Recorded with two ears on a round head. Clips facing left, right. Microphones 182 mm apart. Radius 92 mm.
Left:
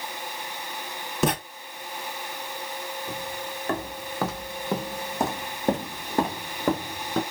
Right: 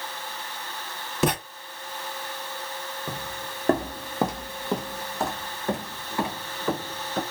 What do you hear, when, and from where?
1.2 s writing: centre (ahead or behind), 0.8 m
3.1 s footsteps: 55° right (ahead or behind), 1.0 m; by 7.2 s 45° left (ahead or behind), 2 m